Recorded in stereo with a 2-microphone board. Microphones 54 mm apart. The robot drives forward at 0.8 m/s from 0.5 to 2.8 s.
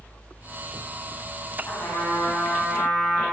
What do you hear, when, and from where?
1.6 s a trumpet: 60° left (ahead or behind), 1.7 m; by 3.2 s 45° left (ahead or behind), 2.0 m